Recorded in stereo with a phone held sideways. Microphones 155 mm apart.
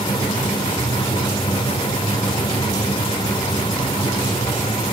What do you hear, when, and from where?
0.0 s a fan: 35° left (ahead or behind), 1.0 m